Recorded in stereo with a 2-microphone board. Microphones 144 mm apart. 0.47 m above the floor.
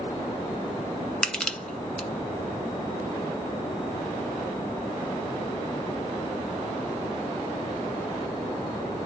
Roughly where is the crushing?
Centre.